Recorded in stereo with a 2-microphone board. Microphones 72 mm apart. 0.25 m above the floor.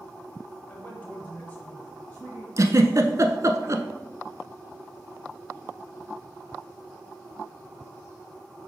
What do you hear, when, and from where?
0.7 s a man speaking: 20° left (ahead or behind), 1.3 m; by 2.5 s 15° left (ahead or behind), 1.8 m
2.6 s a giggle: 50° right (ahead or behind), 0.7 m